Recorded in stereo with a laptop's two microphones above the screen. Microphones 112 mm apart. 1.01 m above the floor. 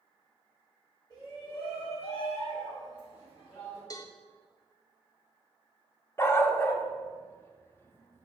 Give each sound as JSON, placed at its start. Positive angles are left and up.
{"t": 1.1, "sound": "a shout", "side_deg": 45, "distance_m": 2.5}
{"t": 3.9, "sound": "a cowbell", "side_deg": 35, "distance_m": 0.6}
{"t": 6.2, "sound": "a dog barking", "side_deg": 20, "distance_m": 0.8}